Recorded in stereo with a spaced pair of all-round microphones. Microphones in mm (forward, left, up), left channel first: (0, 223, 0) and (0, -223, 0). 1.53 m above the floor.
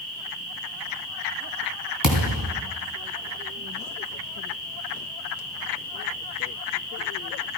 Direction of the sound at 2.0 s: 50° right (ahead or behind).